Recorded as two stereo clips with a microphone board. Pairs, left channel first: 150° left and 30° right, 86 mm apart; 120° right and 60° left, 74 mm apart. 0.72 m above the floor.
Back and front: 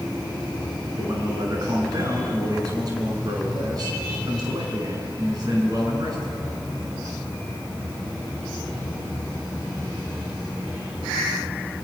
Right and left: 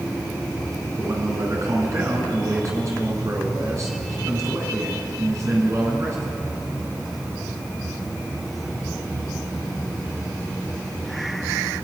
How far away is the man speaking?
About 6.5 m.